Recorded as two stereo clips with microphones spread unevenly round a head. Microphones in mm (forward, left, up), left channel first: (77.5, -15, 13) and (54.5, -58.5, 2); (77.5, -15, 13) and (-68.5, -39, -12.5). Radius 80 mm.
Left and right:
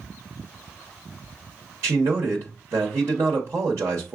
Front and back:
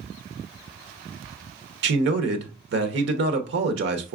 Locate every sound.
1.8 s a man speaking: 175° right, 0.9 m